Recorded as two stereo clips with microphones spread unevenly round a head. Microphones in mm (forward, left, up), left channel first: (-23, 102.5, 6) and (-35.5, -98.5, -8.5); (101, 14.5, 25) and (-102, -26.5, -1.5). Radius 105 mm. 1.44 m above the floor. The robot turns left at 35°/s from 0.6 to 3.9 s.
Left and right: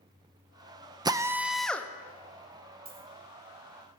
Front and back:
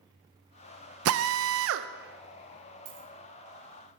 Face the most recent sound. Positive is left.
turn(degrees=170)